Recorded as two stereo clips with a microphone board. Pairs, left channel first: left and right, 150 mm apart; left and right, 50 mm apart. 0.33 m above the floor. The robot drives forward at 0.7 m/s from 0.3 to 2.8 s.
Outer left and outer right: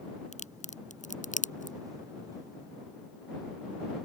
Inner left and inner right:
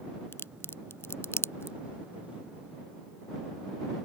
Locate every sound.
0.3 s a crack: 55° left (ahead or behind); by 1.8 s 65° left (ahead or behind)